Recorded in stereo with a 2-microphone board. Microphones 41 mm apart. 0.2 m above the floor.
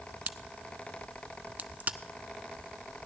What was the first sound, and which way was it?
A crack, 45° right (ahead or behind).